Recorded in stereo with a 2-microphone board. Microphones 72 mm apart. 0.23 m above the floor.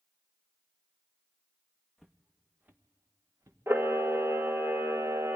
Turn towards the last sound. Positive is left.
turn(degrees=-35)  # may be behind; listen again after turning